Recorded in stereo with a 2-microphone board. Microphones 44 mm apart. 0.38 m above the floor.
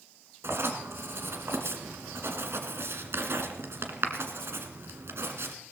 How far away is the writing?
About 1.8 m.